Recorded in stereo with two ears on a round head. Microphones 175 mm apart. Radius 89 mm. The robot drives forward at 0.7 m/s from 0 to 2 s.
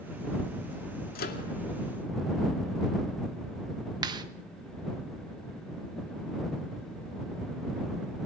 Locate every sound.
1.1 s a microwave: 45° left (ahead or behind), 2.5 m; by 1.4 s 50° left (ahead or behind), 2 m
4.0 s a clap: 20° right (ahead or behind), 1.4 m